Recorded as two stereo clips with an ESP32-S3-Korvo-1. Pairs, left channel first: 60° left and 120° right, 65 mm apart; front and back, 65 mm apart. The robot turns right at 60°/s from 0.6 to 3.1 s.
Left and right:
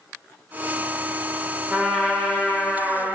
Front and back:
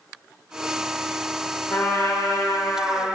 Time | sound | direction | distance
1.7 | a trumpet | 55° right | 0.9 m